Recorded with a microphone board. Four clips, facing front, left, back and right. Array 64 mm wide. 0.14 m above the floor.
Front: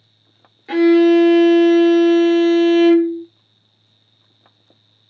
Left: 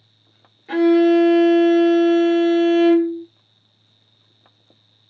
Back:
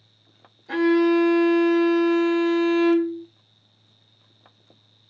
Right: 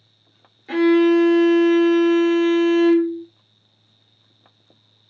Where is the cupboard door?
I don't hear a cupboard door.